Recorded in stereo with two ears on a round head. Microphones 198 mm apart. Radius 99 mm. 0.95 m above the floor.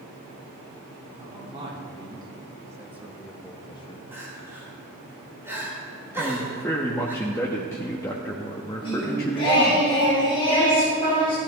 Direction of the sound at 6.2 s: 15° left (ahead or behind).